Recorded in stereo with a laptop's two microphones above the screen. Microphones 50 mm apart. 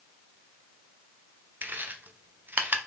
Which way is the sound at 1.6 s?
40° right (ahead or behind).